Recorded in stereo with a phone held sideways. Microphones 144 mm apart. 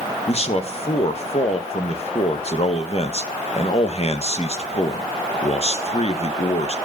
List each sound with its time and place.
0.3 s a man speaking: 45° left (ahead or behind), 1.1 m